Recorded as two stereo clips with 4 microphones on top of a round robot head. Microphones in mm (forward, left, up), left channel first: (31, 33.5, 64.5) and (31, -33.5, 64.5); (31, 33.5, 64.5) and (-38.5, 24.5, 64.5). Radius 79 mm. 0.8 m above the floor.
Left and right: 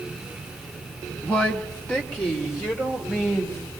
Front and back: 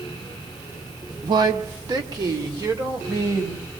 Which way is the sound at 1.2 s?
175° left.